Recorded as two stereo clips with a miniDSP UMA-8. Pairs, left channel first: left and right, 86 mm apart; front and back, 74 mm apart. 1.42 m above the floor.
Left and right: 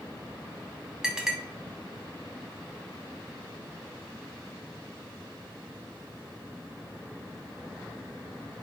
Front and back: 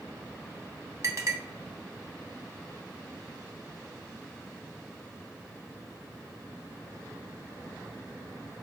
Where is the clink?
170° right, 0.8 m.